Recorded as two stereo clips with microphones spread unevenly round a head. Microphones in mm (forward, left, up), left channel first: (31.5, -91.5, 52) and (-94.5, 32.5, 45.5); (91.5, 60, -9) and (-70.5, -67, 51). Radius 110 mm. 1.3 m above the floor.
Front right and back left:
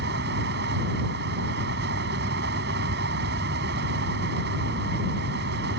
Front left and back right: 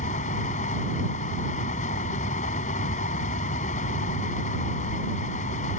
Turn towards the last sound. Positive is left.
turn(degrees=95)